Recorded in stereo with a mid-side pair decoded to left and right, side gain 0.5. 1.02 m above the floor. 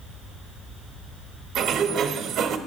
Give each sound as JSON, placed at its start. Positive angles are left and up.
{"t": 1.6, "sound": "a sliding door", "azimuth_deg": -65, "distance_m": 1.1}